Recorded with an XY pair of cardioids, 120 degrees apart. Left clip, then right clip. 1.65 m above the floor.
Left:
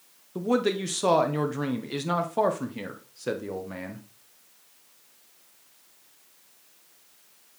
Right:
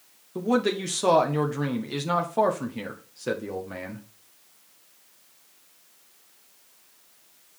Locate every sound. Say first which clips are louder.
0.3 s a man speaking: right 1 dB; straight ahead, 1.2 m